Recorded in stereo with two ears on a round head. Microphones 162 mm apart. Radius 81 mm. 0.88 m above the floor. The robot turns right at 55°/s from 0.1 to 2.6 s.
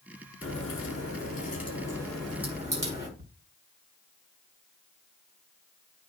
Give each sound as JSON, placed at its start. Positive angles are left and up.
{"t": 0.4, "sound": "a crack", "azimuth_deg": 80, "distance_m": 7.0}
{"t": 3.2, "sound": "ticking", "side_deg": -55, "distance_m": 1.4}